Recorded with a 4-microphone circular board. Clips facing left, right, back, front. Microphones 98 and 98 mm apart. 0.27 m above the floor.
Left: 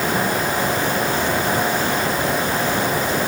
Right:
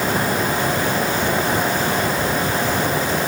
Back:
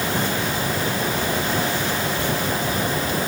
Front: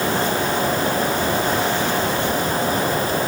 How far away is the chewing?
No chewing in this recording.